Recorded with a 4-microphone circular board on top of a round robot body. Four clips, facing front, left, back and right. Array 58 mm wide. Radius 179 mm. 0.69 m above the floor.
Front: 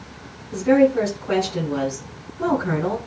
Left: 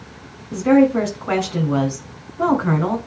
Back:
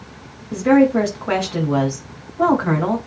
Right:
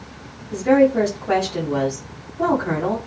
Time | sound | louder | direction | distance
0.5 | a woman speaking | left 1 dB, back 2 dB | 145° left | 4.5 m